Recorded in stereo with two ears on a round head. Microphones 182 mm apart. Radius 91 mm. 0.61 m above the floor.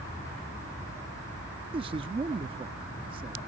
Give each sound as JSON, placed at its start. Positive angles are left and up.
{"t": 1.7, "sound": "a man speaking", "side_deg": -25}